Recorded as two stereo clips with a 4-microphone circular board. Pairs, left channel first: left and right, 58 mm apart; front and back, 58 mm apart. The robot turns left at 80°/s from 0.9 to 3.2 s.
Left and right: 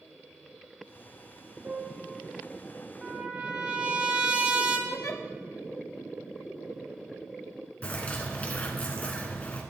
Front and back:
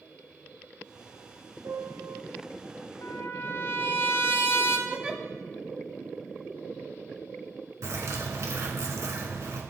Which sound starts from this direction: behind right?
A piano, at 1.6 s.